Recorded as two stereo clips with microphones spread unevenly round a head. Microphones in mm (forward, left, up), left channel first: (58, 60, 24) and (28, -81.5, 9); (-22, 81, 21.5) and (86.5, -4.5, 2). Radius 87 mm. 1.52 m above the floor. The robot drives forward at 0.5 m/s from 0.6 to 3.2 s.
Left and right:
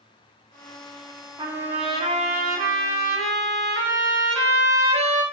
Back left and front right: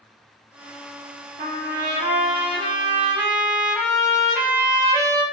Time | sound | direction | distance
1.4 | a trumpet | 40° right | 0.8 m